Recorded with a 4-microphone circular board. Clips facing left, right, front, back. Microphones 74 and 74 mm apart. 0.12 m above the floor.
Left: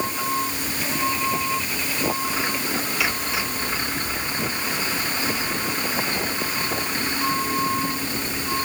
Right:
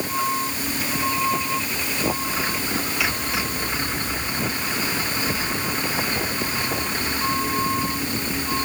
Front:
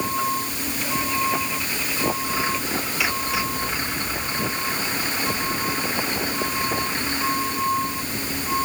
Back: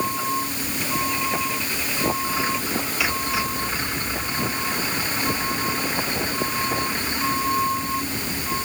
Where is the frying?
I don't hear frying.